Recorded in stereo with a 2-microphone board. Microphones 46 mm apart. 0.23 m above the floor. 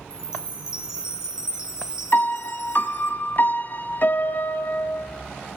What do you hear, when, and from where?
0.1 s a chime: 15° right (ahead or behind), 1.7 m
2.1 s a piano: 50° left (ahead or behind), 0.9 m